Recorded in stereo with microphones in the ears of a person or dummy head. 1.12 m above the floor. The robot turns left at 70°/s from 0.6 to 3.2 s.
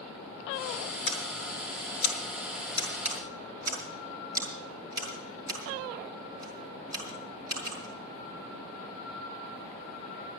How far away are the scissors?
About 6.5 m.